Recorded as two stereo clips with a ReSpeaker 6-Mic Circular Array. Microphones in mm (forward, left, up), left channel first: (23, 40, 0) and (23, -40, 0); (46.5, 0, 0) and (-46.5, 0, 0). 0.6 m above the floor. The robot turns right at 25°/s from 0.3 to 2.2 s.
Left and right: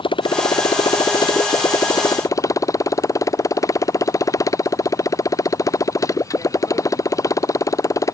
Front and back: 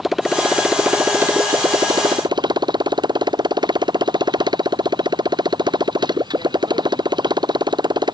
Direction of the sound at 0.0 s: 90° left.